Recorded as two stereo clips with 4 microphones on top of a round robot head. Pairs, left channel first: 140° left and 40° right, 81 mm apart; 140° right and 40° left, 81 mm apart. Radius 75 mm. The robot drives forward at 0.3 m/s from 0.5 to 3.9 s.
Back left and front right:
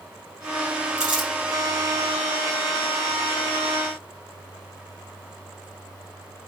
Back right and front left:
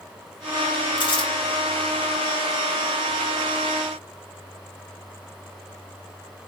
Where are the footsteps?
No footsteps in this recording.